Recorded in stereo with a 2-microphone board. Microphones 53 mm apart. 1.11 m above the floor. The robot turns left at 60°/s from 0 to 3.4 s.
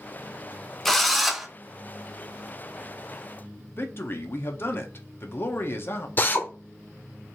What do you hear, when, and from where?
0.8 s a drill: 5° left (ahead or behind), 0.6 m; by 1.5 s 5° right (ahead or behind), 0.6 m
3.8 s a man speaking: 45° left (ahead or behind), 0.8 m
6.2 s a drill: 35° left (ahead or behind), 0.7 m